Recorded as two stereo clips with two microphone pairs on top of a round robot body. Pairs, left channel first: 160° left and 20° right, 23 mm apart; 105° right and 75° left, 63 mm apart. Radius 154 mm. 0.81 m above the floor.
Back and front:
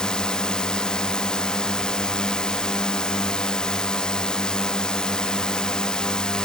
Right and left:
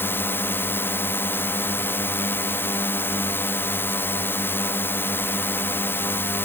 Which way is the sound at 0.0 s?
150° right.